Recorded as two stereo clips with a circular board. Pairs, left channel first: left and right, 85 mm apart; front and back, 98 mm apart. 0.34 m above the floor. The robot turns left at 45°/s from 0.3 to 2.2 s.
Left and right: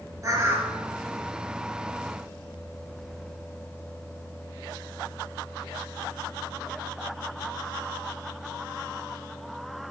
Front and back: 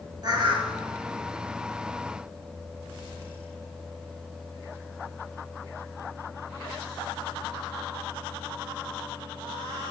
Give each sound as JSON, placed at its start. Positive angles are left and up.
{"t": 0.2, "sound": "a bird", "azimuth_deg": -135, "distance_m": 1.1}